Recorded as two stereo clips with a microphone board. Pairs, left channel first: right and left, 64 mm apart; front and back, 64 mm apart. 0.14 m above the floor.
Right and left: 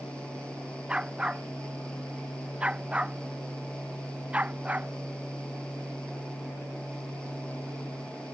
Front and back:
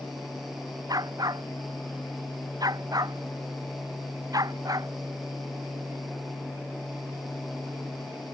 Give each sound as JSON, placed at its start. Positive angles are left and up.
{"t": 0.9, "sound": "a dog barking", "azimuth_deg": 165}